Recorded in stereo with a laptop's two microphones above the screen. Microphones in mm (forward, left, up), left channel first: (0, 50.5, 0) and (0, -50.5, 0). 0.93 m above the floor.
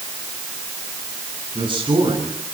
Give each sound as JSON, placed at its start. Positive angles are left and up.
{"t": 1.6, "sound": "a man speaking", "side_deg": -55, "distance_m": 10.0}